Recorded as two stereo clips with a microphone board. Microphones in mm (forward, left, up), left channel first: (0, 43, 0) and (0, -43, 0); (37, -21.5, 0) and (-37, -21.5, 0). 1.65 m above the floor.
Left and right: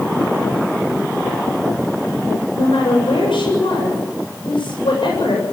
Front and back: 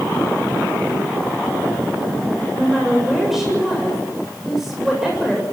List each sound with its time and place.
2.5 s a woman speaking: 95° left, 7.5 m